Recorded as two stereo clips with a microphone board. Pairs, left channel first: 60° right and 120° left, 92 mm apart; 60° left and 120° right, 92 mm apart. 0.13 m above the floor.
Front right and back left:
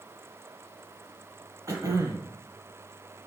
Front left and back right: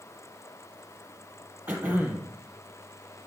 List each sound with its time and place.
1.7 s throat clearing: 170° left, 0.8 m